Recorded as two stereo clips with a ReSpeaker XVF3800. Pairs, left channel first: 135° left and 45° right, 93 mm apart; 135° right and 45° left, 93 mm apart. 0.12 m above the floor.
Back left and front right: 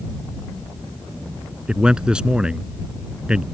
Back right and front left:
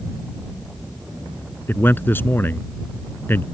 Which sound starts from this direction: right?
A man speaking, at 1.7 s.